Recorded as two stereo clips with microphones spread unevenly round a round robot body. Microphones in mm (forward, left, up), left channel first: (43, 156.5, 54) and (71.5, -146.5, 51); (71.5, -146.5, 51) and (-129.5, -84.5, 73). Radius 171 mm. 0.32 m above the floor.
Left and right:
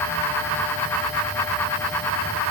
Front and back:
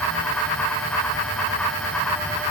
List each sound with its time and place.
Only background noise.